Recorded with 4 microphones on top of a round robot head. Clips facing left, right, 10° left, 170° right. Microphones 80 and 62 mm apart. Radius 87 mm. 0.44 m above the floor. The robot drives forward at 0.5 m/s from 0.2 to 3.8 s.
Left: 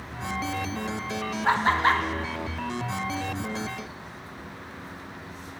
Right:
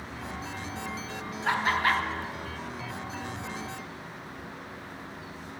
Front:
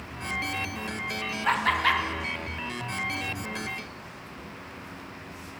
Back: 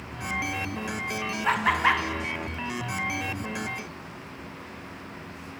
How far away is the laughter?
About 0.8 m.